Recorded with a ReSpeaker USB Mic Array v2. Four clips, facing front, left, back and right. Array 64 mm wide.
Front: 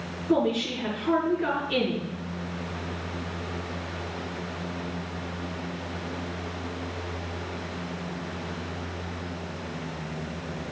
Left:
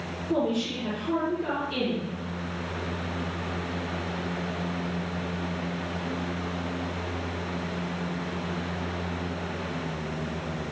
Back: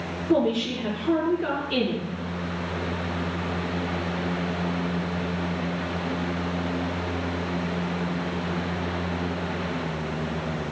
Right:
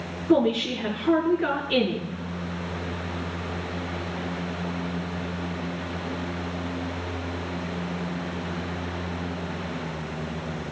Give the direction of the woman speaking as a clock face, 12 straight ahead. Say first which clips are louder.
Right 6 dB, back 2 dB; 3 o'clock.